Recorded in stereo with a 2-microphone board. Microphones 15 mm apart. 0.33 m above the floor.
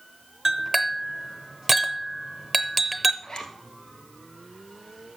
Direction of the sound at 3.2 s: 55° left (ahead or behind).